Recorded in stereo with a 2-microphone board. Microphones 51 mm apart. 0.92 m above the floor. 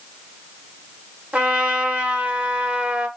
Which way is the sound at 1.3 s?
25° right (ahead or behind).